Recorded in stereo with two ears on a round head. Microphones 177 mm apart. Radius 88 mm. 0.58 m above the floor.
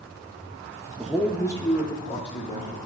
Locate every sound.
1.0 s a man speaking: centre (ahead or behind), 0.7 m; by 2.8 s 35° left (ahead or behind), 1.6 m